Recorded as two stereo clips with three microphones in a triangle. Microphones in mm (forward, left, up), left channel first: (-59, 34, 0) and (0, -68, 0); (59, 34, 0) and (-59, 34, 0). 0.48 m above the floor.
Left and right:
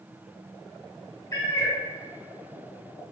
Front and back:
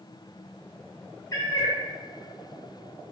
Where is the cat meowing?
60° left, 0.5 m.